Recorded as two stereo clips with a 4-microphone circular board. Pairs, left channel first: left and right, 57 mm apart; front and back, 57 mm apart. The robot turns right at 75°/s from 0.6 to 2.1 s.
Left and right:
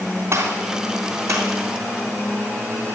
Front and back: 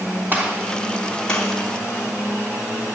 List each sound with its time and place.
0.3 s a gunshot: 125° right, 3.5 m; by 1.5 s 55° right, 3.5 m